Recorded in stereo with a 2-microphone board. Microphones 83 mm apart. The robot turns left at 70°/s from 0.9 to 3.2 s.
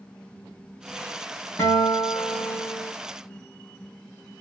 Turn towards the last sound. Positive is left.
turn(degrees=40)